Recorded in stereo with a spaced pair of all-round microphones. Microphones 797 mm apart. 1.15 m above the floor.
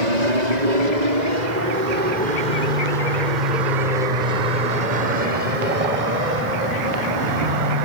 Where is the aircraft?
60° right (ahead or behind); by 7.8 s 75° right (ahead or behind).